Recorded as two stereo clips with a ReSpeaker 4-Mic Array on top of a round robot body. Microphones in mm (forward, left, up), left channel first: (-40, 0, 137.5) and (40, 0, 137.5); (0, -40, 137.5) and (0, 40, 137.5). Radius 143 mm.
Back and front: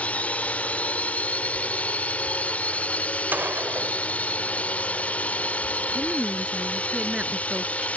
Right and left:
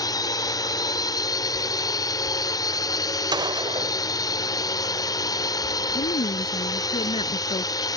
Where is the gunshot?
65° left.